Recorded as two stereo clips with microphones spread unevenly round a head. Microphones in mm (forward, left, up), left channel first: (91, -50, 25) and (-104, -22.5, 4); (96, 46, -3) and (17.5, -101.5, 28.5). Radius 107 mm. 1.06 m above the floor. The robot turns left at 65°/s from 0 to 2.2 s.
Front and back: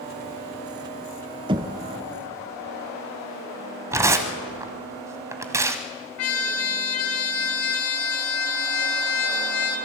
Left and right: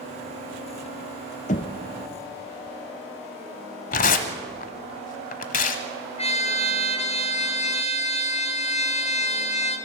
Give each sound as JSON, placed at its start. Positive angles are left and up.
{"t": 1.5, "sound": "knocking", "azimuth_deg": 105, "distance_m": 0.6}
{"t": 3.9, "sound": "tearing paper", "azimuth_deg": 95, "distance_m": 1.1}
{"t": 6.2, "sound": "a trumpet", "azimuth_deg": 10, "distance_m": 2.5}